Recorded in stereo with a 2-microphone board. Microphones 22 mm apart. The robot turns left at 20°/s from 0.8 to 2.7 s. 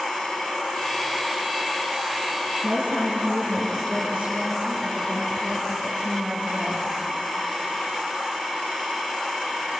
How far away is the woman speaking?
About 3 m.